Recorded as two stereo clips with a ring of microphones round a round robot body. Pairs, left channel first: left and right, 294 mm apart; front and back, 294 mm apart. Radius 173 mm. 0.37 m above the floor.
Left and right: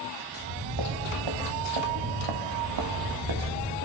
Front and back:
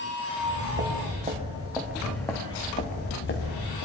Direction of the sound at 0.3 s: 125° right.